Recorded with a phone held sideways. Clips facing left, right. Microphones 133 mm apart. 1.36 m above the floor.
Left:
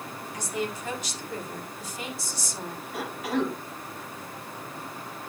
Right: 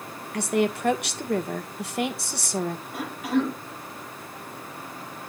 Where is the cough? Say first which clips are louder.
Right 2 dB; 5° right (ahead or behind), 8.5 m.